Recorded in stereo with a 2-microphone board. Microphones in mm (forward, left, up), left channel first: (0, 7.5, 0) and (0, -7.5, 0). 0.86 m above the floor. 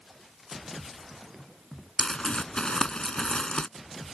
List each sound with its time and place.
2.0 s crumpling: 60° left (ahead or behind)